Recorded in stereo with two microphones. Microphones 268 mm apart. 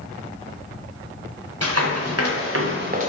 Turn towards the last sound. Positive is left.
turn(degrees=-25)  # may be behind; listen again after turning